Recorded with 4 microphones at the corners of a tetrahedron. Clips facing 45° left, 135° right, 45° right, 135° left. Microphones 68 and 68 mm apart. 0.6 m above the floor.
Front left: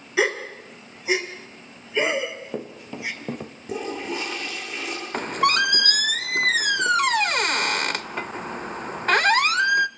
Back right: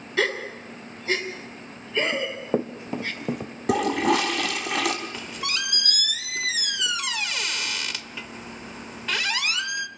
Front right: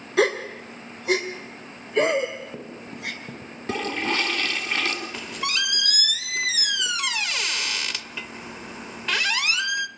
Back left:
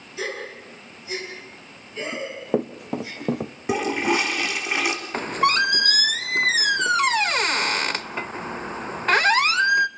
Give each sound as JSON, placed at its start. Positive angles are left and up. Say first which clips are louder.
{"t": 0.2, "sound": "a gasp", "louder": "front left 2 dB, front right 9 dB", "azimuth_deg": -30, "distance_m": 2.5}
{"t": 2.1, "sound": "running footsteps", "louder": "back right 2 dB, back left 2 dB", "azimuth_deg": 175, "distance_m": 2.5}
{"t": 3.7, "sound": "a toilet flushing", "louder": "back right 8 dB, back left 4 dB", "azimuth_deg": -150, "distance_m": 2.5}
{"t": 5.1, "sound": "a squeak", "louder": "front left 11 dB, back left 9 dB", "azimuth_deg": 85, "distance_m": 0.5}